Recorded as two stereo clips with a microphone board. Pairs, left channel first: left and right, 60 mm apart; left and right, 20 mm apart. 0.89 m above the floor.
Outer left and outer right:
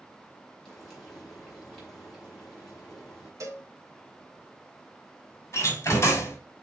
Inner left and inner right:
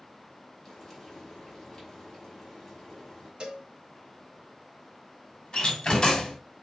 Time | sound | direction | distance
0.7 | frying | 15° left (ahead or behind) | 5 m
3.4 | a cowbell | 60° right (ahead or behind) | 2.5 m
5.5 | a door slam | 45° left (ahead or behind) | 3 m